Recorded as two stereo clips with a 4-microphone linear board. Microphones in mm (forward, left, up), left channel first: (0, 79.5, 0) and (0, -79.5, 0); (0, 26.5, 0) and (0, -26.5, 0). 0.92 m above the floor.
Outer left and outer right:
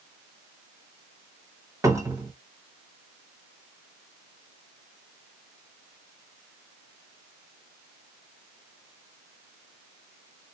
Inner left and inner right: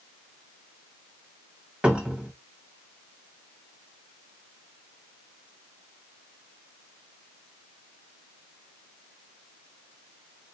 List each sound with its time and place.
1.8 s a cupboard door: 20° right (ahead or behind), 1.3 m